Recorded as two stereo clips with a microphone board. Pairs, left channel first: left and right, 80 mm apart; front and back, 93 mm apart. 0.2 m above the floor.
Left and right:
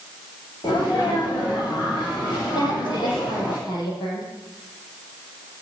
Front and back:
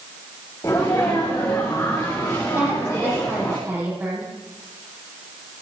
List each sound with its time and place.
0.6 s a sneeze: 60° left, 5 m
2.5 s a woman speaking: 115° left, 7 m